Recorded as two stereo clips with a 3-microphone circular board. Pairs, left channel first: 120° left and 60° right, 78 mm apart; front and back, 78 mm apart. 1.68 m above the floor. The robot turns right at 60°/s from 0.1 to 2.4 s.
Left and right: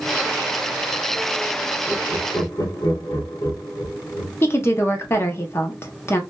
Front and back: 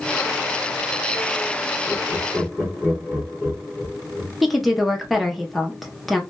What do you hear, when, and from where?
1.9 s laughter: 65° left, 1.2 m; by 4.3 s 100° left, 1.2 m
4.4 s a woman speaking: 90° left, 0.7 m